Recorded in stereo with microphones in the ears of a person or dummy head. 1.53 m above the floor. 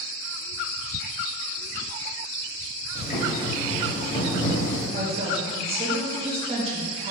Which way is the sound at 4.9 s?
40° right (ahead or behind).